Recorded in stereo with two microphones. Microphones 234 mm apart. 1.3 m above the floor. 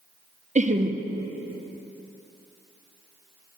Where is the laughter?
30° right (ahead or behind), 0.8 m.